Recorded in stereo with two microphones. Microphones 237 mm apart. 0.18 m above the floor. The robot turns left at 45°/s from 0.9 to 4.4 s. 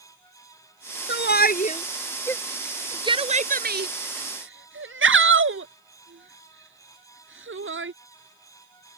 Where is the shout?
55° left (ahead or behind); by 7.9 s 65° right (ahead or behind).